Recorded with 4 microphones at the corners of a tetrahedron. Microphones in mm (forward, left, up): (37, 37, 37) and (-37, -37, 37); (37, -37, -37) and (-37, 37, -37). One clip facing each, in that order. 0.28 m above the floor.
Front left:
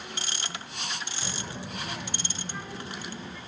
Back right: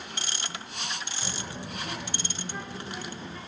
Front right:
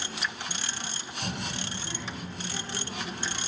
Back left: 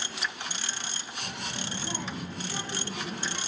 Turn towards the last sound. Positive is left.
turn(degrees=130)